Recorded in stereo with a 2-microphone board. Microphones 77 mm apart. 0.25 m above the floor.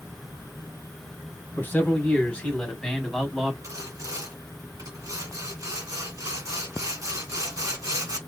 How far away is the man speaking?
About 1.7 m.